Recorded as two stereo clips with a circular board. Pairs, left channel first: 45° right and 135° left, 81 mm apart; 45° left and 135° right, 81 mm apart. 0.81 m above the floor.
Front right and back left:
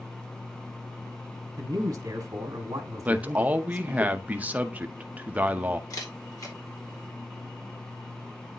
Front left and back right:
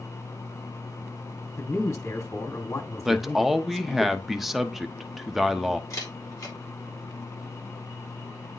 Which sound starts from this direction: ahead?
A camera shutter, at 5.9 s.